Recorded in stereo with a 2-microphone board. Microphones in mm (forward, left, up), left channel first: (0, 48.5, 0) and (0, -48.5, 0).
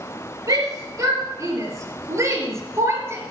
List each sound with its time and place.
0.5 s a shout: 35° right (ahead or behind), 4.5 m; by 3.2 s 25° right (ahead or behind), 3.5 m